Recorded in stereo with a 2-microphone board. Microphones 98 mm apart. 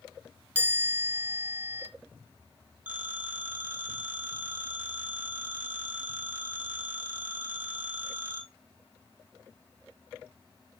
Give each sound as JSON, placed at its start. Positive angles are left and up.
{"t": 0.6, "sound": "a chime", "side_deg": -20, "distance_m": 2.0}
{"t": 2.9, "sound": "a phone ringing", "side_deg": -20, "distance_m": 2.5}